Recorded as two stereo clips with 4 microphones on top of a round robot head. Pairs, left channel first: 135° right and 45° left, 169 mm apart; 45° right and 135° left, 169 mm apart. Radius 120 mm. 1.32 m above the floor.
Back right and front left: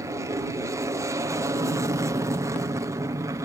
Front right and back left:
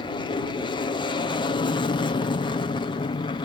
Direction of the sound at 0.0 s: 15° right.